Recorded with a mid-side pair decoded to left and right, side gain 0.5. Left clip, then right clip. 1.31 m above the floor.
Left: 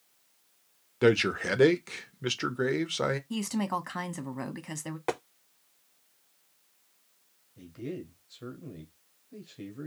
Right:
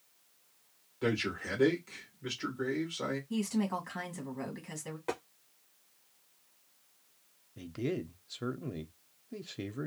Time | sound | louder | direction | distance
1.0 | a man speaking | left 9 dB | 65° left | 0.7 m
3.3 | a woman speaking | left 3 dB | 50° left | 0.9 m
5.1 | tapping | left 5 dB | 55° left | 0.6 m
7.6 | a man speaking | right 3 dB | 45° right | 0.6 m